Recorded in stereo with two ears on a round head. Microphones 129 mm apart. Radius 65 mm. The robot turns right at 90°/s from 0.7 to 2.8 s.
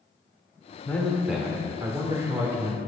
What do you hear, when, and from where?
0.8 s a man speaking: 10° left (ahead or behind), 0.9 m; by 2.8 s 10° right (ahead or behind), 0.9 m